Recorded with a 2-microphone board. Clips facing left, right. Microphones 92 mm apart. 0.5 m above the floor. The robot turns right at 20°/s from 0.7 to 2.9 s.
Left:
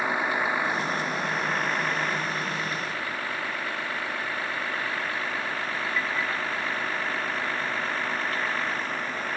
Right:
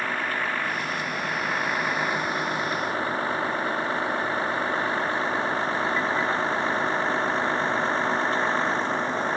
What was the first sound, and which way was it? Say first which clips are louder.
A vehicle: left 2 dB; 15° left (ahead or behind).